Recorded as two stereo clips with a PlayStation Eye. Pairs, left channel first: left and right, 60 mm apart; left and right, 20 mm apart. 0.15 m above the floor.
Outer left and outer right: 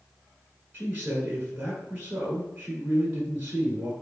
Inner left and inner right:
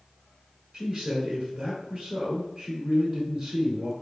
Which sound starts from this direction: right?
A man speaking, at 0.7 s.